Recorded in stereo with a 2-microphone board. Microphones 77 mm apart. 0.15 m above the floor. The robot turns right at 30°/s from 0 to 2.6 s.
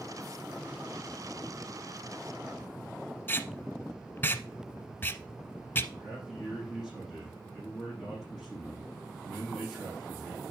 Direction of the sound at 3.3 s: 25° left (ahead or behind).